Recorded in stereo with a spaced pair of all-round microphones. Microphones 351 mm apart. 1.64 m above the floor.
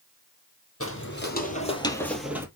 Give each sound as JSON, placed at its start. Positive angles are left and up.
{"t": 0.8, "sound": "footsteps", "side_deg": 40, "distance_m": 2.5}